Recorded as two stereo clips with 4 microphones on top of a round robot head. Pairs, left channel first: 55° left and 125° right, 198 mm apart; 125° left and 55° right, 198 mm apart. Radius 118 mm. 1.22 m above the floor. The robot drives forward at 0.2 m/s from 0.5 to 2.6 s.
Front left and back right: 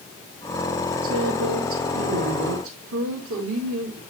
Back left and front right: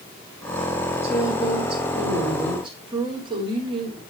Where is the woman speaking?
115° right, 3 m; by 4.0 s 120° right, 3 m.